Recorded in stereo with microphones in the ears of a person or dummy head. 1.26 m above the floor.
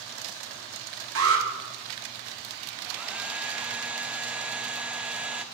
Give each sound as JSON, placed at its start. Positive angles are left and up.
{"t": 1.1, "sound": "an alarm", "side_deg": -65, "distance_m": 2.0}
{"t": 2.9, "sound": "a hair dryer", "side_deg": -5, "distance_m": 0.9}